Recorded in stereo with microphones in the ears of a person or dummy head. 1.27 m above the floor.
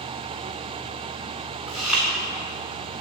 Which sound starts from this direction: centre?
Chewing, at 1.7 s.